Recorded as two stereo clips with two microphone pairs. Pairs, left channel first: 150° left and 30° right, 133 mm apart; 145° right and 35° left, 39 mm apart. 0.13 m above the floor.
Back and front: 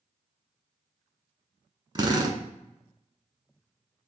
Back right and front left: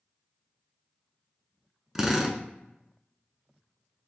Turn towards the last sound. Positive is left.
turn(degrees=-35)